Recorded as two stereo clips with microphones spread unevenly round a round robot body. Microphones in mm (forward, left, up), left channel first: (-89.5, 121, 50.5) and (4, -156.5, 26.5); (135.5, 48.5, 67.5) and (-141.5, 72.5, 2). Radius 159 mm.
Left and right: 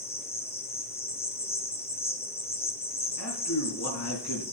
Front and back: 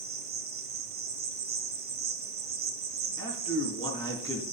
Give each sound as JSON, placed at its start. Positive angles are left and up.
{"t": 0.0, "sound": "an insect", "azimuth_deg": 175, "distance_m": 1.5}
{"t": 3.2, "sound": "a man speaking", "azimuth_deg": 75, "distance_m": 4.0}